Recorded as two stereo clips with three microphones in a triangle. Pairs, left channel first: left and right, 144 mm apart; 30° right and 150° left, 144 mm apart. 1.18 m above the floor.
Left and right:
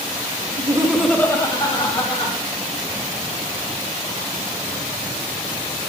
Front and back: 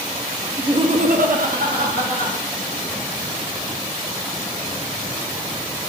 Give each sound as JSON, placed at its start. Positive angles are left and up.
{"t": 0.6, "sound": "laughter", "azimuth_deg": -135, "distance_m": 0.8}